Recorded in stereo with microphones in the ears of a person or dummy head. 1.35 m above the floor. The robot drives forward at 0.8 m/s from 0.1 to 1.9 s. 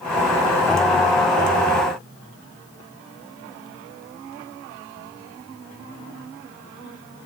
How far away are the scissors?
No scissors in this recording.